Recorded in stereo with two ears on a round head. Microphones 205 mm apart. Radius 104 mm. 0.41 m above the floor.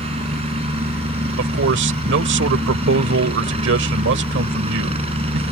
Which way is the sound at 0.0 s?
25° right (ahead or behind).